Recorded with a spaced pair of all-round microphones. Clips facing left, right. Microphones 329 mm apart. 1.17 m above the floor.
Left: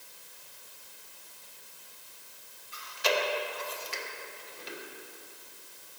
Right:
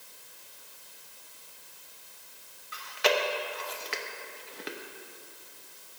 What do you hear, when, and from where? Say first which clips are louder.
2.7 s chewing: right 3 dB; 70° right (ahead or behind), 1.0 m